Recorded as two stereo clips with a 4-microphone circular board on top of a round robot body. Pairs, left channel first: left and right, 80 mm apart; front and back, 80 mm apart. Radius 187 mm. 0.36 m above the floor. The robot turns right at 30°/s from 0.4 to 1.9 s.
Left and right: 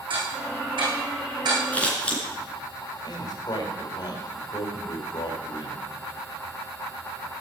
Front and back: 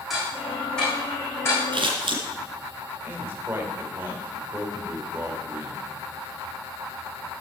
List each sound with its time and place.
0.1 s ticking: 90° right, 7 m; by 1.6 s 55° right, 7 m
1.7 s scissors: 160° left, 3 m; by 2.2 s 165° left, 3 m
3.0 s a man speaking: 120° left, 4 m